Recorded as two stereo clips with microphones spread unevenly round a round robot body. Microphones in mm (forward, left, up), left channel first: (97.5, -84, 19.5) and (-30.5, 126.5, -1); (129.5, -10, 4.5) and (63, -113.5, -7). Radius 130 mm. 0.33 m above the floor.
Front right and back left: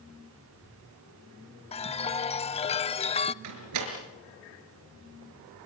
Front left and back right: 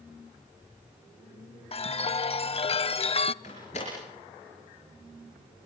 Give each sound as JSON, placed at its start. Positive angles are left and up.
{"t": 1.7, "sound": "a chime", "azimuth_deg": 10, "distance_m": 0.5}
{"t": 3.4, "sound": "a door slam", "azimuth_deg": 125, "distance_m": 5.0}